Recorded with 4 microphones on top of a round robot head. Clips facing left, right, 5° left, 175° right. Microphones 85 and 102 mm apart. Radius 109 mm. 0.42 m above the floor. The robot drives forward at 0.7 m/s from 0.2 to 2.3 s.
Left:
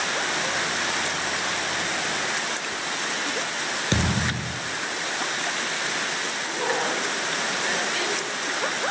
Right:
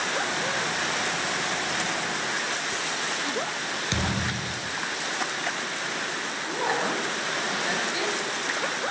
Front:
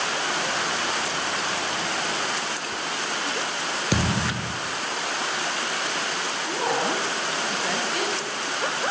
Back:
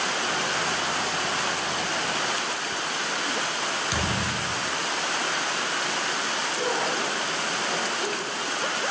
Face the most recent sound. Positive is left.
turn(degrees=-20)